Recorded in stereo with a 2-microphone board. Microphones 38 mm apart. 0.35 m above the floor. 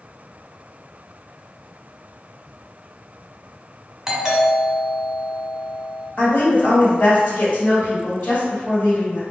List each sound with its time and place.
4.1 s a doorbell: 10° right (ahead or behind), 1.4 m
6.2 s a woman speaking: 55° left (ahead or behind), 2.0 m